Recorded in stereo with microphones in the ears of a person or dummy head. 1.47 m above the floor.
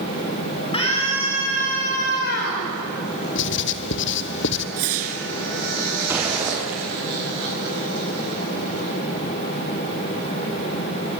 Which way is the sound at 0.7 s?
30° left (ahead or behind).